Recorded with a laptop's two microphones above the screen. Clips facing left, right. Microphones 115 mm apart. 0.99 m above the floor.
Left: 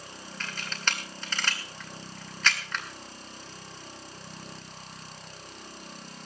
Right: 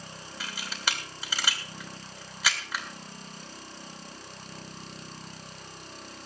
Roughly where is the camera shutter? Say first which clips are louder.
Even; centre.